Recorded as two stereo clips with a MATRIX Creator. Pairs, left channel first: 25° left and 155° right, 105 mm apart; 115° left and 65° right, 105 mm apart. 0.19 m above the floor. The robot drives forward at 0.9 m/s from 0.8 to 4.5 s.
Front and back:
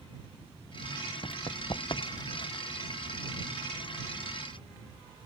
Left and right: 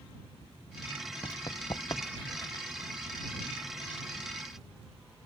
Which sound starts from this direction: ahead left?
Running footsteps, at 1.2 s.